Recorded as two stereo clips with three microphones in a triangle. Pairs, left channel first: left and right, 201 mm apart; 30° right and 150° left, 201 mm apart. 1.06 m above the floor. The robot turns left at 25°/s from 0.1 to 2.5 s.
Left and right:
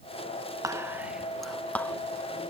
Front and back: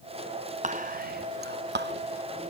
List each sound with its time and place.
0.6 s whispering: 160° right; by 1.9 s 165° left